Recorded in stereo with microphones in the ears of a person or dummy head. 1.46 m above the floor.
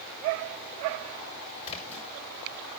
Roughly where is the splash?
Left.